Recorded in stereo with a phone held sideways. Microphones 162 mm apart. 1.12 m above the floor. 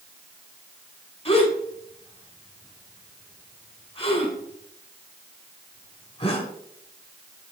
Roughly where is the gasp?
Left.